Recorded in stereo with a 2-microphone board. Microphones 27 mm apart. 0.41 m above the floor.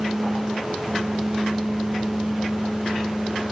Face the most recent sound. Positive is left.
No sound to turn to.